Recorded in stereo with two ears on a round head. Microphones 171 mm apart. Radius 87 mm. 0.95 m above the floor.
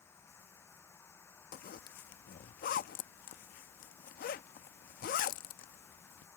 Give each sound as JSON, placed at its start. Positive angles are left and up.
{"t": 0.0, "sound": "running water", "side_deg": 15}
{"t": 1.5, "sound": "a zipper", "side_deg": 50}